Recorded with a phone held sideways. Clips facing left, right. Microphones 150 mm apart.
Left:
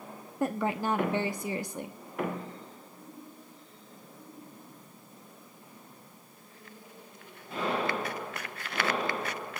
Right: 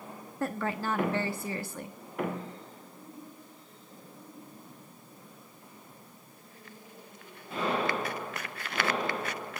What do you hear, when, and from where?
0.4 s a woman speaking: 15° left (ahead or behind), 1.1 m